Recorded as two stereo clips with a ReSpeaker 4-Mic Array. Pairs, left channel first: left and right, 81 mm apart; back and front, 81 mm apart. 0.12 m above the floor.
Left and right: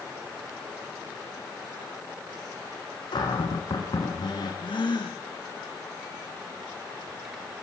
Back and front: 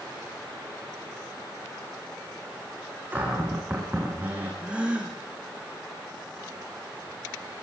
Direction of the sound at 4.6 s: 75° left.